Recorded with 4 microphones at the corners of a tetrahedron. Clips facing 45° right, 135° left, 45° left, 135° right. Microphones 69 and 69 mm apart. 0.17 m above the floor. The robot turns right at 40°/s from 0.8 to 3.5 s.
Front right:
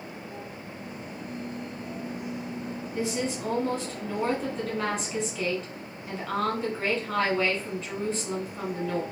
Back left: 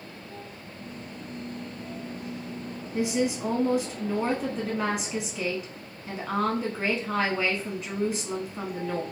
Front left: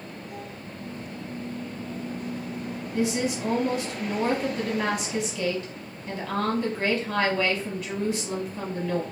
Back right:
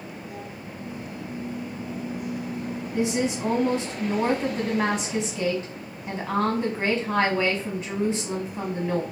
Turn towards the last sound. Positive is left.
turn(degrees=-155)